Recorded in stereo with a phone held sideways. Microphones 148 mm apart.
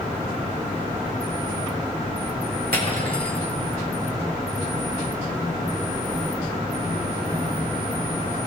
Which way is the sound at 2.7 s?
75° right (ahead or behind).